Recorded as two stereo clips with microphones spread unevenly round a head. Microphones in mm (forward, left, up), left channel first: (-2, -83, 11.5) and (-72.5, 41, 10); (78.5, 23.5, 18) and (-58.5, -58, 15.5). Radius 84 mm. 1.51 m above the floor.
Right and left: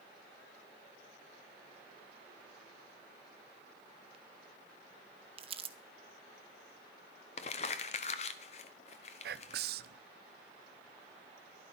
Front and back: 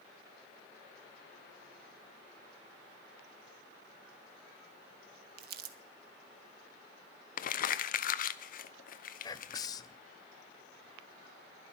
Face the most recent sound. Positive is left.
turn(degrees=100)